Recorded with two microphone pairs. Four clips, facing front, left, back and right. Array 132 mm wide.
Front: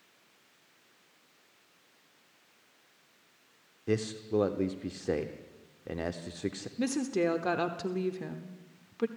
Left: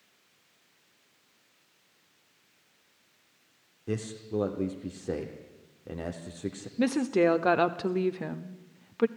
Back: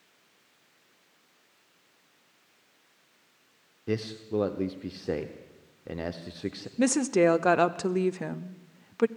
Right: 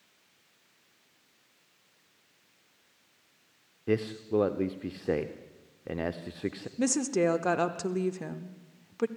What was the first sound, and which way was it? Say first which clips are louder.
A man speaking: right 5 dB, even; 65° right.